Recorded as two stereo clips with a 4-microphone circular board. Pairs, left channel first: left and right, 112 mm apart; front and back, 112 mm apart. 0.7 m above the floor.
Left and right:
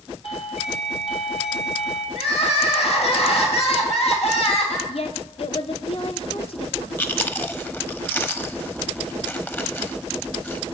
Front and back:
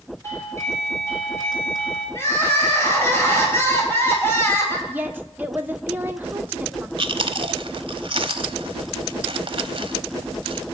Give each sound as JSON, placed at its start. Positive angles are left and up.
{"t": 0.2, "sound": "a doorbell", "azimuth_deg": 65, "distance_m": 4.5}
{"t": 2.1, "sound": "crying", "azimuth_deg": 70, "distance_m": 3.5}
{"t": 4.9, "sound": "a woman speaking", "azimuth_deg": 105, "distance_m": 1.3}
{"t": 7.0, "sound": "chewing", "azimuth_deg": 155, "distance_m": 0.9}